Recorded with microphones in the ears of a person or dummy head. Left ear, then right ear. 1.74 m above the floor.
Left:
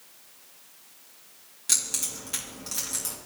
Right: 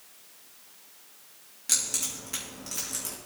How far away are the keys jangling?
About 1.7 m.